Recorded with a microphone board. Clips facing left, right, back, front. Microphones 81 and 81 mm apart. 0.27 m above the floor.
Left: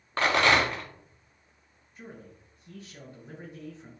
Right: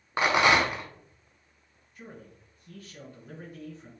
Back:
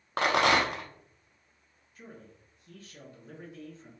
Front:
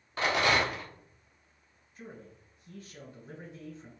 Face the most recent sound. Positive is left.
turn(degrees=40)